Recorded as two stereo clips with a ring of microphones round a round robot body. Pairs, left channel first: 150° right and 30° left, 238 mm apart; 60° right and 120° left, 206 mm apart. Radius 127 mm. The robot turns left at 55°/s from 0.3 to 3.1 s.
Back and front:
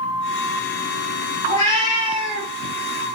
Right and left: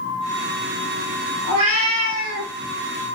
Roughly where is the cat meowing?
Behind.